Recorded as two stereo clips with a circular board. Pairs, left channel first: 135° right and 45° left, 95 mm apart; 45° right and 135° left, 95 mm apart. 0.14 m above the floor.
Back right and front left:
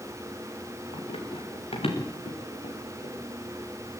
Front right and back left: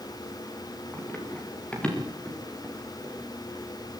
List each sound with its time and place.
0.9 s running footsteps: 120° right, 5.5 m; by 3.1 s 130° right, 6 m